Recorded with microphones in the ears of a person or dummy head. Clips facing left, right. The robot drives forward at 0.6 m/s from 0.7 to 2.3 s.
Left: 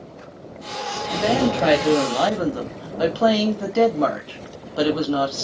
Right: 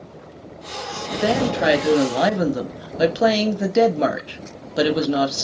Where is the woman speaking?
10° right (ahead or behind), 1.3 m; by 5.4 s 25° right (ahead or behind), 0.6 m.